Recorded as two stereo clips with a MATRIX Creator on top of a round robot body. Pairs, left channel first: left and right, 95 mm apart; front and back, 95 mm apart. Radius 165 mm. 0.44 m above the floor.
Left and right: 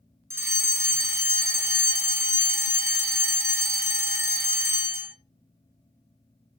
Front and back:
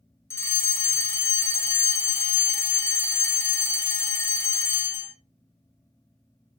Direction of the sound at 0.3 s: 45° right.